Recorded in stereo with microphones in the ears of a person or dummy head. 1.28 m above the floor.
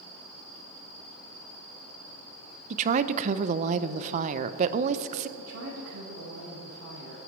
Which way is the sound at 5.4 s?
70° right (ahead or behind).